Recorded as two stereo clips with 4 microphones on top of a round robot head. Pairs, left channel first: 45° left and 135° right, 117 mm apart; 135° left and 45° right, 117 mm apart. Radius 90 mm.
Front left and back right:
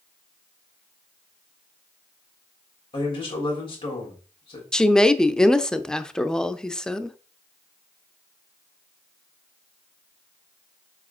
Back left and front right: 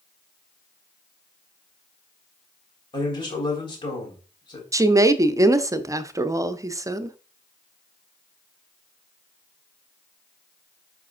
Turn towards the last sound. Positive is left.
turn(degrees=-35)